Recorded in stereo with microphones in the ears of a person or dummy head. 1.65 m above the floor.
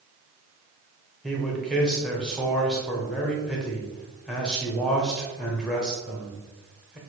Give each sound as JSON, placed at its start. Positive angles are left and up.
{"t": 1.2, "sound": "a man speaking", "side_deg": 5, "distance_m": 0.8}